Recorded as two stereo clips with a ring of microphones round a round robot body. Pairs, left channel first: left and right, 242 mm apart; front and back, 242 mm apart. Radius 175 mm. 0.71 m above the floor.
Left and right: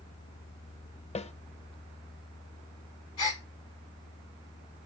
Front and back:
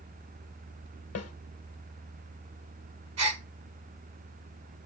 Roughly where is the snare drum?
Ahead left.